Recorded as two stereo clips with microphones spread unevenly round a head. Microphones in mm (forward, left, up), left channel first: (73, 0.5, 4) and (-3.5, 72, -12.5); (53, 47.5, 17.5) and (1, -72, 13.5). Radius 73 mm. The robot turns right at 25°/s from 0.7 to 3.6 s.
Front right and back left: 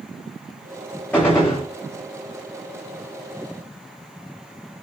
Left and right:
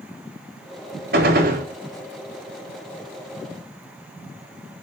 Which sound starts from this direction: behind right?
A gunshot, at 1.1 s.